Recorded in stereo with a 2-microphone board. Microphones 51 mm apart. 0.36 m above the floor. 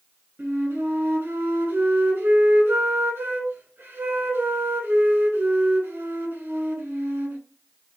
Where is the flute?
55° right (ahead or behind), 2.0 m.